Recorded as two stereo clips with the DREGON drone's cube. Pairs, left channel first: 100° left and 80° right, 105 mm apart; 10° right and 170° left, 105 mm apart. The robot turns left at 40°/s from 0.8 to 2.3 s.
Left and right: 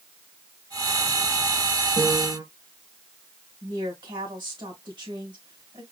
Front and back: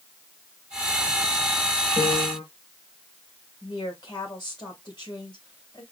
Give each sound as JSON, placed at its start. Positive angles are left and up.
{"t": 2.0, "sound": "a piano", "azimuth_deg": -20, "distance_m": 2.5}
{"t": 3.6, "sound": "a woman speaking", "azimuth_deg": -50, "distance_m": 2.5}